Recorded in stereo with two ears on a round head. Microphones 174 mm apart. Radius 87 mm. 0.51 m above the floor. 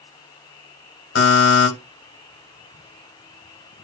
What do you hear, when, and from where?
1.1 s a buzzer: 70° left (ahead or behind), 2 m